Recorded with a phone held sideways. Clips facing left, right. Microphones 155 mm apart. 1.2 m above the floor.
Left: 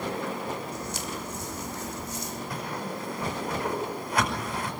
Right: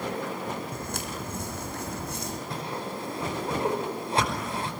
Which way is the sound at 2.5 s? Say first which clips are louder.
Left 1 dB; 30° right (ahead or behind).